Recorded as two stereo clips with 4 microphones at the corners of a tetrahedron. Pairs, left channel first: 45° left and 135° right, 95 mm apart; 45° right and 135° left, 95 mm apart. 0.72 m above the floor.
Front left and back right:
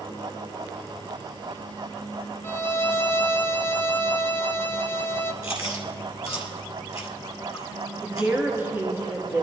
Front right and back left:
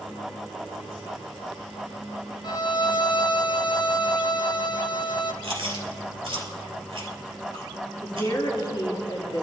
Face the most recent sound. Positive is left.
turn(degrees=-75)